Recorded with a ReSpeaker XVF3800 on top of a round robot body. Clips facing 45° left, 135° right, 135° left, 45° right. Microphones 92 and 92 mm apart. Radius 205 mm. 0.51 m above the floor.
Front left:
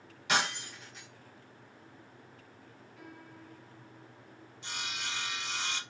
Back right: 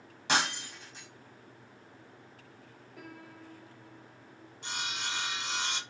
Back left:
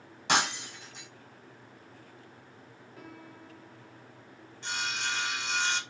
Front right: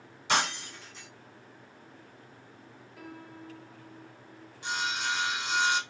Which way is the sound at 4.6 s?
120° right.